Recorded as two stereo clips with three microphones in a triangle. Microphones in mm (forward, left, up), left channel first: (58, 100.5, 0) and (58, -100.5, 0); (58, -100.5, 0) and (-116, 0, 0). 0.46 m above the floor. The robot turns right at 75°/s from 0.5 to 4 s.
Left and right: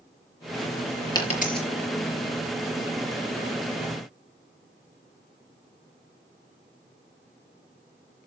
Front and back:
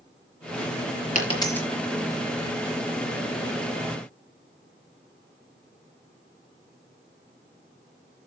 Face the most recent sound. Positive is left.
turn(degrees=-125)